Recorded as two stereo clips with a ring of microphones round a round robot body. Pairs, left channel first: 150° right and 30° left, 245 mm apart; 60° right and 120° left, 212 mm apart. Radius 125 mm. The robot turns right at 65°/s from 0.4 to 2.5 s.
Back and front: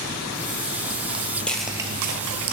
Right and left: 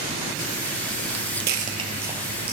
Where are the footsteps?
115° left, 1.2 m; by 2.5 s 55° left, 1.1 m.